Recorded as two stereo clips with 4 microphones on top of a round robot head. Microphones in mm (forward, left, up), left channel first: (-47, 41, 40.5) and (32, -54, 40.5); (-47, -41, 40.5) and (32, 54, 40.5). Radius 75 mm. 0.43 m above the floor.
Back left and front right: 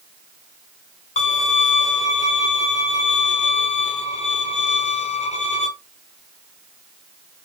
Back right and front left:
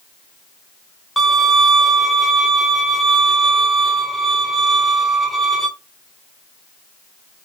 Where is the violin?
140° left, 1.0 m.